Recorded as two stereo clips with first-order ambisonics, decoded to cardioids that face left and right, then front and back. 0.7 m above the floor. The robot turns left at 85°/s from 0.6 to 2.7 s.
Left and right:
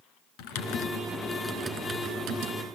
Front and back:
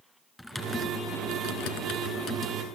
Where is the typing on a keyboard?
90° left, 1.8 m; by 2.6 s 85° right, 1.8 m.